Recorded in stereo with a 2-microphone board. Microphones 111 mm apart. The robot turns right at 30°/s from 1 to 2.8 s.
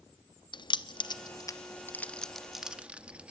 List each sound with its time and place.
0.5 s keys jangling: 45° left (ahead or behind), 0.7 m; by 3.3 s 10° right (ahead or behind), 0.7 m